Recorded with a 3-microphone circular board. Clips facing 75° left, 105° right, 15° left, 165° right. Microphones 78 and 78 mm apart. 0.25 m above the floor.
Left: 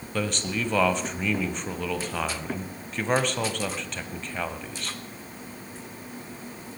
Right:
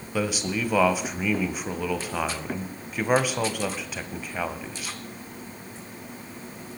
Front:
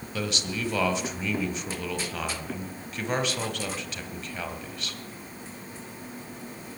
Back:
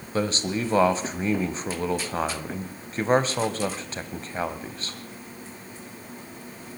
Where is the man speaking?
Straight behind, 1.3 m.